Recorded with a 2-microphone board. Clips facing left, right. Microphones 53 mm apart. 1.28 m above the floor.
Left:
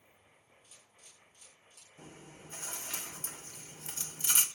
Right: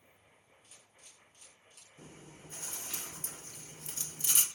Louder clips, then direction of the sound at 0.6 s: Right 2 dB; 60° right (ahead or behind).